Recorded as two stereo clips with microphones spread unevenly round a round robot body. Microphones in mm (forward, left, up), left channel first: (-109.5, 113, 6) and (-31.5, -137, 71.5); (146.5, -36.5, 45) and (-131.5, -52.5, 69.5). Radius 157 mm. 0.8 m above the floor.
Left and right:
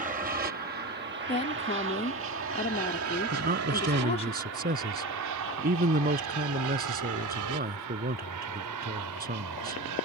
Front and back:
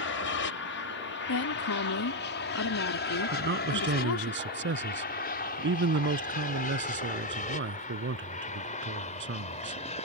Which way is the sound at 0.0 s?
5° right.